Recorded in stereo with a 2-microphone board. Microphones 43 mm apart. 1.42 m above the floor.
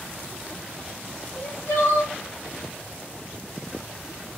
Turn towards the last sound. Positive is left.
turn(degrees=75)  # may be behind; listen again after turning